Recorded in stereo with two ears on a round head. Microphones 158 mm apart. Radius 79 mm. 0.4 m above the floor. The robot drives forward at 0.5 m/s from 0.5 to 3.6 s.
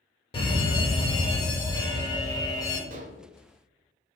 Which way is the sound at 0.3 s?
30° left (ahead or behind).